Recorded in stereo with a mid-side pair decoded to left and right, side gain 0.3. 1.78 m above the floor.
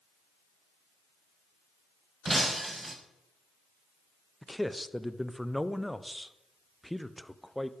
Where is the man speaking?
5° left, 1.2 m.